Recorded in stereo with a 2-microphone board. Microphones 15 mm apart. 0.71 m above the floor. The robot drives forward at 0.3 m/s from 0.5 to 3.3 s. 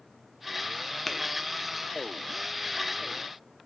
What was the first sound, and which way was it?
Tapping, 10° left (ahead or behind).